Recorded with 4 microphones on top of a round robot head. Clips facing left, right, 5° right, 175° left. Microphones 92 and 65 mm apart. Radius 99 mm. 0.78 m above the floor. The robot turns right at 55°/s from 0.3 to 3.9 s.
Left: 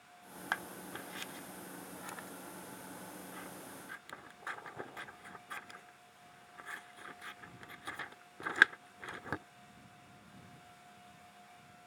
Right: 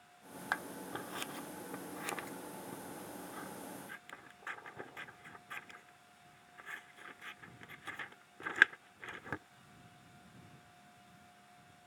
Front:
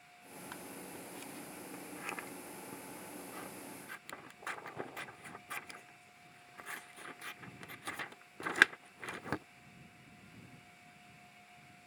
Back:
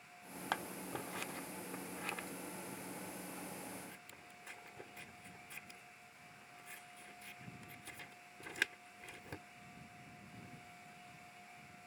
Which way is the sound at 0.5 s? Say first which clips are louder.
Right 1 dB, back 8 dB; 175° right.